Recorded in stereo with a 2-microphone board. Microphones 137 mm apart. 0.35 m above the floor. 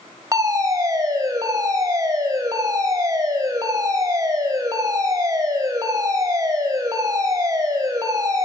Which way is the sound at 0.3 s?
25° right (ahead or behind).